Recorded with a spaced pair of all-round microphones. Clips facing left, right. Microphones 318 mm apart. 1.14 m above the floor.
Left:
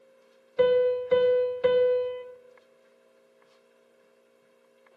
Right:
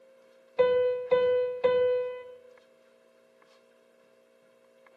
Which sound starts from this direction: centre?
A piano, at 0.6 s.